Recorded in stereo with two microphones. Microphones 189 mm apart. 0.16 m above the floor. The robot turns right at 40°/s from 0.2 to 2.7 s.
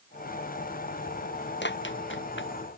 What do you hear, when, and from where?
1.6 s running footsteps: 70° left (ahead or behind); by 2.5 s 75° left (ahead or behind)